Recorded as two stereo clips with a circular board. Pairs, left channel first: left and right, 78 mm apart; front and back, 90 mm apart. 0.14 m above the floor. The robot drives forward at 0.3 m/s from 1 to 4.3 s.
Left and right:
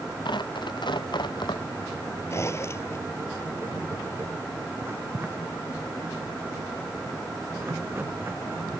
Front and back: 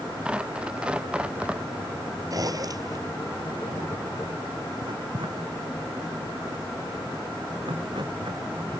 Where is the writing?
150° right.